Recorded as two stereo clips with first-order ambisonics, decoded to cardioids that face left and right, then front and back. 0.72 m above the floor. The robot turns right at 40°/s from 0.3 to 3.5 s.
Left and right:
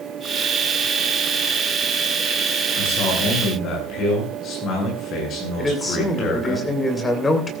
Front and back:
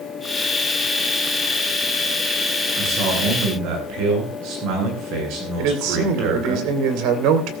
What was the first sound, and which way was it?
A man speaking, 115° left.